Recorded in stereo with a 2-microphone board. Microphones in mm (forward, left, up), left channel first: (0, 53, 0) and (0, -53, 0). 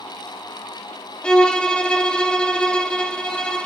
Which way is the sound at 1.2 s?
10° left (ahead or behind).